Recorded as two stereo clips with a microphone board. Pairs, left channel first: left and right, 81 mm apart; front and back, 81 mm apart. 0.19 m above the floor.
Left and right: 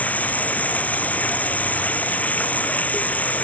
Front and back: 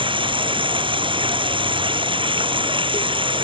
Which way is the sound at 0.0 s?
165° left.